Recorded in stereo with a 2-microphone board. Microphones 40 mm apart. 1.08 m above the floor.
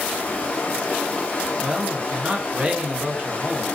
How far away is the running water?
About 0.7 m.